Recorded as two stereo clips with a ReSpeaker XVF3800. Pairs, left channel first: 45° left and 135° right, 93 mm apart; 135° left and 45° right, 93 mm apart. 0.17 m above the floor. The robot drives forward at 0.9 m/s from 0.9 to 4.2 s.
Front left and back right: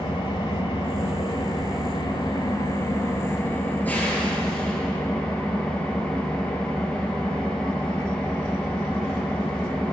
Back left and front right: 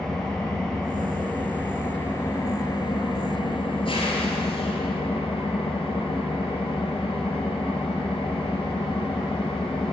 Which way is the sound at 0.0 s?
55° left.